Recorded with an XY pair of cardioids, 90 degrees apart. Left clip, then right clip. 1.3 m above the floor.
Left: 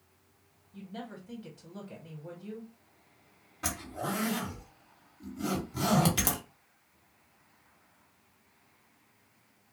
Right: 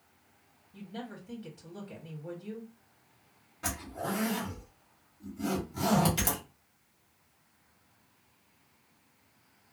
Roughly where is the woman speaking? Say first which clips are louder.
Even; ahead.